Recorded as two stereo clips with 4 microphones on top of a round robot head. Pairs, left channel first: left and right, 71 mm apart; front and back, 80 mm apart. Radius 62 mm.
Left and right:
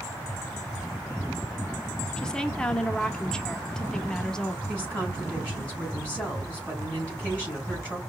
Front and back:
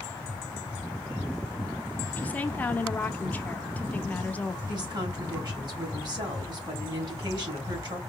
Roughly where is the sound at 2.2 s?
Ahead left.